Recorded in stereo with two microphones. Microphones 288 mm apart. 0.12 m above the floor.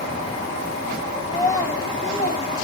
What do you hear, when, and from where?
1.3 s a child speaking: 5° left (ahead or behind), 2.5 m; by 2.6 s 35° left (ahead or behind), 3.5 m